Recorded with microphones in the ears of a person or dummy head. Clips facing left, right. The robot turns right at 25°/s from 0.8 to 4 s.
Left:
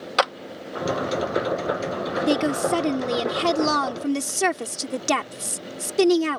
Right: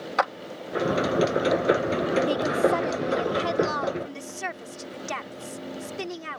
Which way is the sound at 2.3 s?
40° left.